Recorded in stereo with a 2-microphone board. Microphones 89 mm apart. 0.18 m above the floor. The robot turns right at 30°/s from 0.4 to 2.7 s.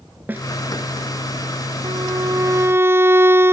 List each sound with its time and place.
0.3 s a snare drum: 20° right (ahead or behind)
1.8 s a violin: 50° right (ahead or behind); by 3.5 s 25° right (ahead or behind)